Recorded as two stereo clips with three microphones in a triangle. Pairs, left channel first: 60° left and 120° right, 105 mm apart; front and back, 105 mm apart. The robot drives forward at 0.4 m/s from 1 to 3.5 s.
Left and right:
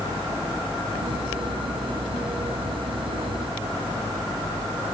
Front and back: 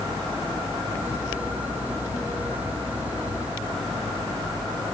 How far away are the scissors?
I don't hear scissors.